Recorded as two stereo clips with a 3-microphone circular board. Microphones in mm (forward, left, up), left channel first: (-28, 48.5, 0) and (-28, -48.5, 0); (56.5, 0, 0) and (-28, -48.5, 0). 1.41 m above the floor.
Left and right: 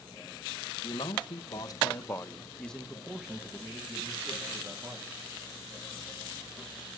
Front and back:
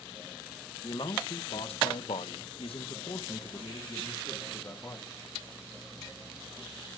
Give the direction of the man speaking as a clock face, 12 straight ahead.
10 o'clock.